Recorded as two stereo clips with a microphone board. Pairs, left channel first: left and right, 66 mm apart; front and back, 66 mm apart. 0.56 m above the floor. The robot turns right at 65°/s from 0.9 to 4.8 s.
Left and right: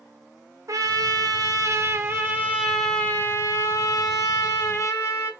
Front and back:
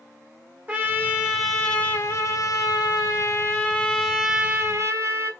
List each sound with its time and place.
0.7 s a trumpet: 120° right, 1.6 m; by 5.3 s 135° left, 1.6 m